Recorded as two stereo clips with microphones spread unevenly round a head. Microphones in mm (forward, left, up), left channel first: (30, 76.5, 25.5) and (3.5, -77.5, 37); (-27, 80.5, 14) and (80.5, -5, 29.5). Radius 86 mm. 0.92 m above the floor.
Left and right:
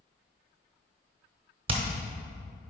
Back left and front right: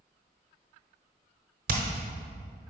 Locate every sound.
1.7 s hammering: 50° right, 0.9 m